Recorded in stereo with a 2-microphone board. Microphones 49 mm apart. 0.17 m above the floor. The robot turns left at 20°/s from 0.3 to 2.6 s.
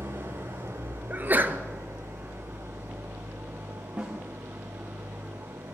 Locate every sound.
0.0 s an engine running: 75° right, 6.5 m; by 5.7 s 120° right, 6.5 m
1.1 s a sneeze: 40° right (ahead or behind), 2.5 m; by 1.6 s 45° right (ahead or behind), 2.5 m
4.0 s a snare drum: 25° right (ahead or behind), 5.5 m